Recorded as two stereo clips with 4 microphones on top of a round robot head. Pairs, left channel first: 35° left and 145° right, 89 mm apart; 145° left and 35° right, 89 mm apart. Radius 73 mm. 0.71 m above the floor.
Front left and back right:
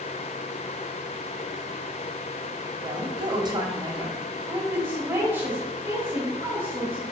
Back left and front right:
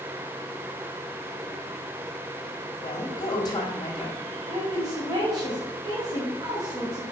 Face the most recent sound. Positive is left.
turn(degrees=-85)